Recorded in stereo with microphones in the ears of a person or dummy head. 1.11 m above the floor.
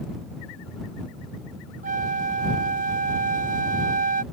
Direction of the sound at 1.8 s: 45° right (ahead or behind).